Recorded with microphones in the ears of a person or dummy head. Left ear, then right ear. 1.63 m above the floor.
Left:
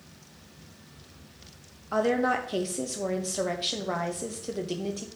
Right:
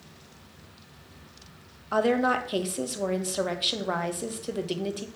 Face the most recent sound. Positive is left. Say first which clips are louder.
# right 1 dB
turn(degrees=-15)  # may be behind; listen again after turning